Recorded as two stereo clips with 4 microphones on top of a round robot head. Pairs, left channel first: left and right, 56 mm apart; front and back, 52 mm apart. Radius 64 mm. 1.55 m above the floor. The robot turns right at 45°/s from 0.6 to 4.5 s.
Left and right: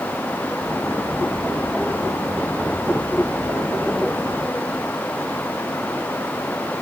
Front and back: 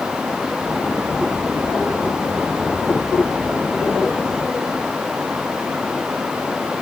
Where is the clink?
I don't hear a clink.